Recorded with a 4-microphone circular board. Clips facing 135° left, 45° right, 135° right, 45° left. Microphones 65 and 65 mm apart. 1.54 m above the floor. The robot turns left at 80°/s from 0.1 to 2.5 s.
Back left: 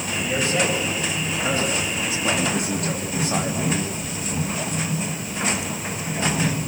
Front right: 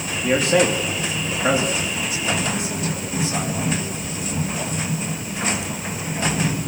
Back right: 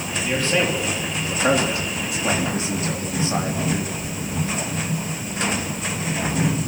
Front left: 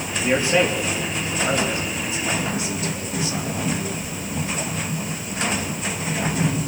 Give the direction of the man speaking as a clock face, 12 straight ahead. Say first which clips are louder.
Front right 6 dB, front left 3 dB; 12 o'clock.